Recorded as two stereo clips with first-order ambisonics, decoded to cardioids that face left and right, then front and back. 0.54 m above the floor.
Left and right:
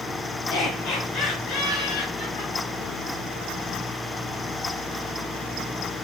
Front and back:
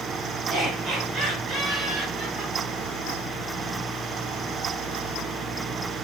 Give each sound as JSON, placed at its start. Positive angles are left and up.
{"t": 0.5, "sound": "laughter", "azimuth_deg": 120, "distance_m": 7.5}